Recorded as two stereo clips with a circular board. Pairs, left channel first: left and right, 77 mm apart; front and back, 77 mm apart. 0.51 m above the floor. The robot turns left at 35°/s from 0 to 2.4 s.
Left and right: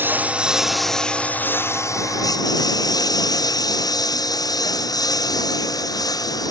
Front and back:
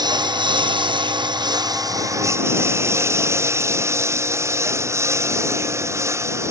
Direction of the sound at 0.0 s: 155° right.